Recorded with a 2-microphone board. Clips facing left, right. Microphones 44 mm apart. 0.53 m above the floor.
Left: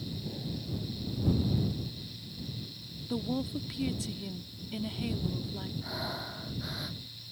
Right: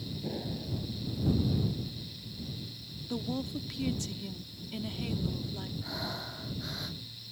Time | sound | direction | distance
0.2 | an explosion | 30° right (ahead or behind) | ?
3.1 | a woman speaking | 5° left (ahead or behind) | ?
5.8 | breathing | 5° left (ahead or behind) | ?